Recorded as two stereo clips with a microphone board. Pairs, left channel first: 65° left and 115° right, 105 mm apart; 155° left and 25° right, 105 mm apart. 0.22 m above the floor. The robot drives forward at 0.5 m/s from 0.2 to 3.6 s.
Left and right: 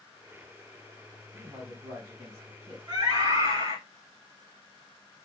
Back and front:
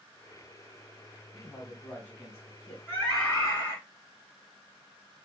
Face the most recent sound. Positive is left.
turn(degrees=-150)